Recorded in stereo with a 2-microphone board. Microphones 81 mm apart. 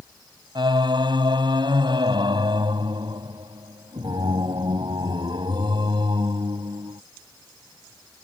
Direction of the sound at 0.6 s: 75° right (ahead or behind).